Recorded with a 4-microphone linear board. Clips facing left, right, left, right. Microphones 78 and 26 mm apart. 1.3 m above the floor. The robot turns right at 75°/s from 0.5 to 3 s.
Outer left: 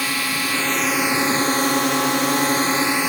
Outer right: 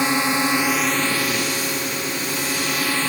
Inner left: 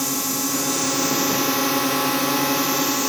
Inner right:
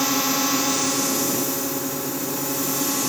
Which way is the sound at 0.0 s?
25° right.